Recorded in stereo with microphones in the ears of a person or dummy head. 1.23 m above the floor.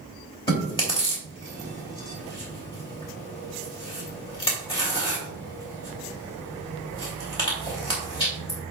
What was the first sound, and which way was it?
Chewing, 20° left (ahead or behind).